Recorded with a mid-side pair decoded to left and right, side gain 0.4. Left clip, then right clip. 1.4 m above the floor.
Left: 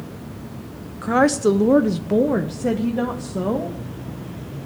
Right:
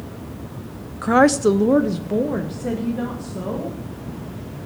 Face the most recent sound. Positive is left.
turn(degrees=60)